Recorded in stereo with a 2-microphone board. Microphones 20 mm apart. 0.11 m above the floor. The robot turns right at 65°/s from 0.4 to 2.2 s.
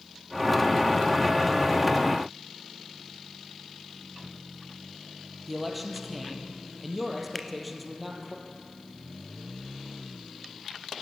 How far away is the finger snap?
About 0.9 m.